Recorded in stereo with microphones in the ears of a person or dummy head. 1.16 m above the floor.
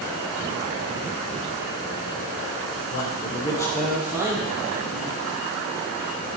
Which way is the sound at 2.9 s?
50° left (ahead or behind).